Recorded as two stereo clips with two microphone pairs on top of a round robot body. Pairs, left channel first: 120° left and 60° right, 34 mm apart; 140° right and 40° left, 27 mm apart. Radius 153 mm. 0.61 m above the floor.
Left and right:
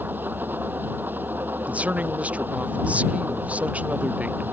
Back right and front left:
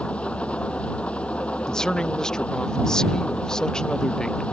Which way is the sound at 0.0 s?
90° right.